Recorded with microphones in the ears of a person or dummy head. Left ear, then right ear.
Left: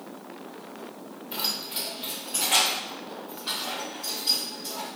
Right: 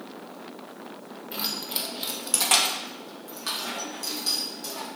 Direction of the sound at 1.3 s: Centre (ahead or behind).